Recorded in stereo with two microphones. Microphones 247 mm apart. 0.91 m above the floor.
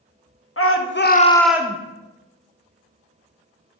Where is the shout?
60° left (ahead or behind), 1.2 m; by 1.8 s 25° right (ahead or behind), 0.9 m.